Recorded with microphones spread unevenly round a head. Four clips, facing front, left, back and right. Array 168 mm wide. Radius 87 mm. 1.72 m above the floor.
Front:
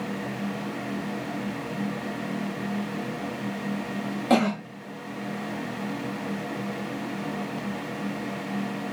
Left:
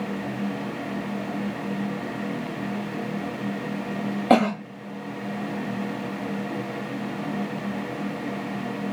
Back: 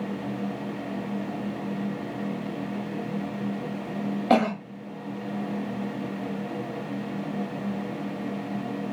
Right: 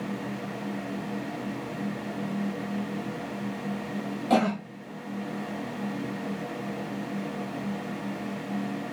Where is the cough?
90° left, 0.9 m.